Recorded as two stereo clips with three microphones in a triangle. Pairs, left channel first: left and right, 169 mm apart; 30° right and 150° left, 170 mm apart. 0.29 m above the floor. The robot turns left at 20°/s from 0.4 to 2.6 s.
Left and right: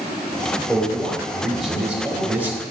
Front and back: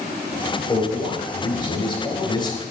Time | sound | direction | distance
0.7 | a man speaking | 10° left | 1.3 m